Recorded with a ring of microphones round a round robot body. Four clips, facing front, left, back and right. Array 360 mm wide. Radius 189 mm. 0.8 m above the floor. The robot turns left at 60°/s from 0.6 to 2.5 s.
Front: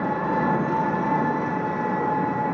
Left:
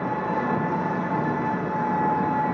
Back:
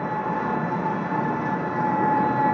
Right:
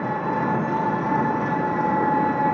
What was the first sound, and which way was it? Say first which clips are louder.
An engine running: right 2 dB, front 2 dB; 35° right.